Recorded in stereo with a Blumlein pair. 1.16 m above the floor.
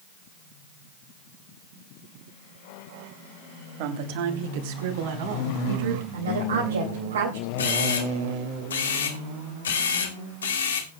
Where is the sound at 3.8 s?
45° right, 2.5 m; by 6.0 s 55° right, 5.5 m.